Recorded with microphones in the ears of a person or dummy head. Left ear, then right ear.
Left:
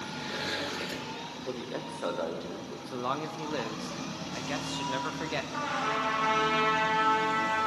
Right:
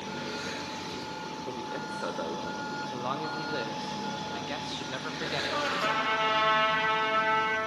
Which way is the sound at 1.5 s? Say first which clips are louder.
Even; 10° left (ahead or behind).